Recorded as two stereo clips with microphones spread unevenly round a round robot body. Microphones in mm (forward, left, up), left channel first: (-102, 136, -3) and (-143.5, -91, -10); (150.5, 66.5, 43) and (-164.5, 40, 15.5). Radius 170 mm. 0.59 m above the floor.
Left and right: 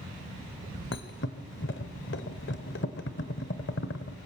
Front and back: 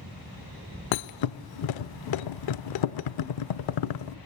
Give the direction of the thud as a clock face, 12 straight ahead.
11 o'clock.